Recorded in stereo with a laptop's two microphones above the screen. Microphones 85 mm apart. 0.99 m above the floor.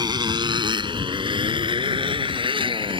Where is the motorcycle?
55° right (ahead or behind); by 3.0 s 90° right.